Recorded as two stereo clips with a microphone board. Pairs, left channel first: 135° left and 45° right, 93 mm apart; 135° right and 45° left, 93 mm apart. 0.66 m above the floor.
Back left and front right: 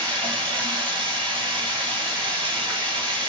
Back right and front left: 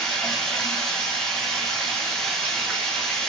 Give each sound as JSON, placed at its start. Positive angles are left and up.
{"t": 0.0, "sound": "running water", "azimuth_deg": -50, "distance_m": 2.0}